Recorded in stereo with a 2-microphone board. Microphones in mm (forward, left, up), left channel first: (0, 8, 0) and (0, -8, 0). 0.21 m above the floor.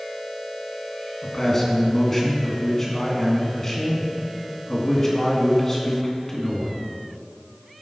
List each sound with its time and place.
1.2 s a man speaking: 25° left (ahead or behind), 2 m